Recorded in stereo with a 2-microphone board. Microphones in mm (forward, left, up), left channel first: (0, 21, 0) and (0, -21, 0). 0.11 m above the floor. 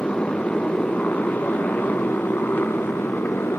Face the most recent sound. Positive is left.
turn(degrees=60)  # may be behind; listen again after turning